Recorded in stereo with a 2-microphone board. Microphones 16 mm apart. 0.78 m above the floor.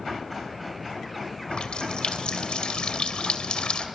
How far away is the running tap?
About 2.5 m.